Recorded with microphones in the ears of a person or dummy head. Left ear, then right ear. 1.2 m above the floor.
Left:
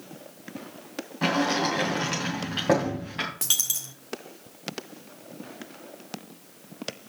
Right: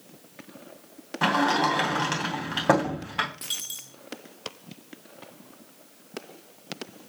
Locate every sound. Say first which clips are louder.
1.2 s a sliding door: right 2 dB; 45° right (ahead or behind), 3 m
3.4 s a dropped coin: left 6 dB; 35° left (ahead or behind), 1.3 m